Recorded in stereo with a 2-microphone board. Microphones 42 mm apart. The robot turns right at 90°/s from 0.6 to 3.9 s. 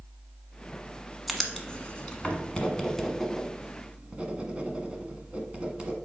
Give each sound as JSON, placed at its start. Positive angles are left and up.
{"t": 1.3, "sound": "writing", "side_deg": 5, "distance_m": 1.2}